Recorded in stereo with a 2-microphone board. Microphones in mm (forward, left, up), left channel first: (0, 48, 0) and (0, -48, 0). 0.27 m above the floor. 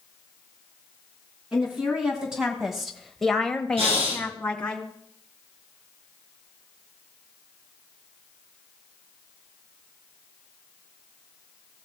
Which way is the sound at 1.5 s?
10° right (ahead or behind).